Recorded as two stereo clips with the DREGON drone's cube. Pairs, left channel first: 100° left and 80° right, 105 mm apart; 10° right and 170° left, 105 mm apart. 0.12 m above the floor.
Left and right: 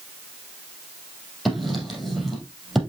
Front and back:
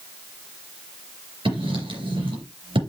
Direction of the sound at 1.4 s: 170° right.